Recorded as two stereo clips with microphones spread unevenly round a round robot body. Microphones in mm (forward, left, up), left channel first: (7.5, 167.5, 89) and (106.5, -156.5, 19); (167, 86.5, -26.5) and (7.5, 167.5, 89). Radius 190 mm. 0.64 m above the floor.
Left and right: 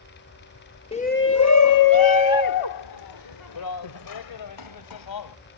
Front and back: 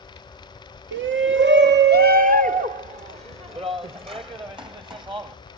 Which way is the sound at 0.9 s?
175° right.